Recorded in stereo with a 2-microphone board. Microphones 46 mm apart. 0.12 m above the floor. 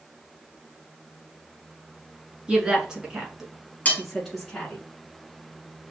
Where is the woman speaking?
20° right (ahead or behind), 1.3 m; by 4.8 s 10° left (ahead or behind), 1.2 m.